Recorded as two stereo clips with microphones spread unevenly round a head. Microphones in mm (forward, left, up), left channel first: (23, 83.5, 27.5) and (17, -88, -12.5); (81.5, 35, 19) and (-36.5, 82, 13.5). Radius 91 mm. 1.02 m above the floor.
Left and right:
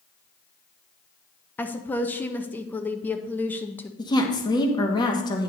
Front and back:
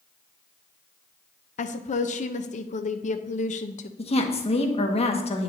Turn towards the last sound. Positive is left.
turn(degrees=20)